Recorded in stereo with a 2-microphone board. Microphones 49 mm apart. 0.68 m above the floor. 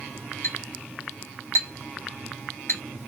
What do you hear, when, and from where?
0.4 s a clink: 75° left (ahead or behind), 2 m